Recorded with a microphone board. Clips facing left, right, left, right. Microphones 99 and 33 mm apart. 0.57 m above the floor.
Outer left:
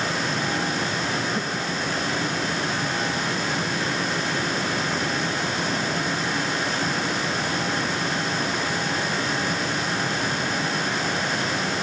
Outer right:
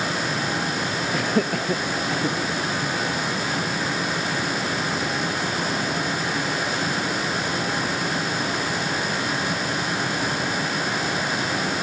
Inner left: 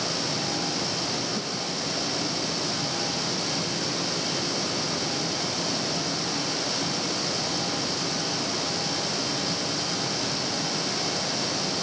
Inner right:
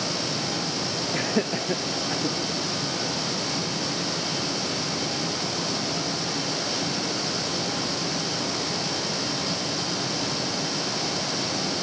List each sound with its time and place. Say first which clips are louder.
1.1 s laughter: outer right 4 dB, inner right 4 dB; 75° right (ahead or behind)